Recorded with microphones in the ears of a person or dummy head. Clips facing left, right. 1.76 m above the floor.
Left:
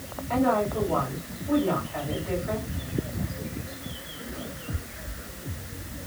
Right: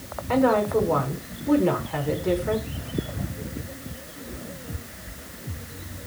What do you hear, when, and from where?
0.3 s a woman speaking: 75° right (ahead or behind), 5 m